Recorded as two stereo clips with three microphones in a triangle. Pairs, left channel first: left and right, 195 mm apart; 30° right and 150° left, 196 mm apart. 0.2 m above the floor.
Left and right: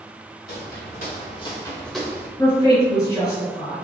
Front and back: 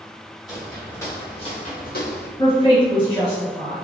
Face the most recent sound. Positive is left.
turn(degrees=25)